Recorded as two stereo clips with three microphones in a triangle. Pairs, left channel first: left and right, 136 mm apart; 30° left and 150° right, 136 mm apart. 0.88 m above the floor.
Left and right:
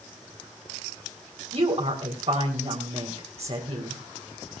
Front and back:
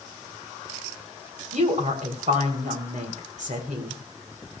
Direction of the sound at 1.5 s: 130° right.